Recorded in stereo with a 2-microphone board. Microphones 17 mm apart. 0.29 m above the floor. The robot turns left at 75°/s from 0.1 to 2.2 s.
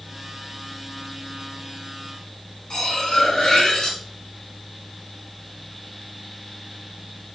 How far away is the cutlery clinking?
About 2 m.